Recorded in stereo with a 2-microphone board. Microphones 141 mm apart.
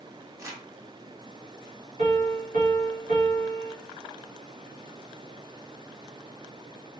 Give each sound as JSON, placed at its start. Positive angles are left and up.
{"t": 0.4, "sound": "crumpling", "side_deg": -20, "distance_m": 1.2}
{"t": 2.0, "sound": "a piano", "side_deg": -65, "distance_m": 1.5}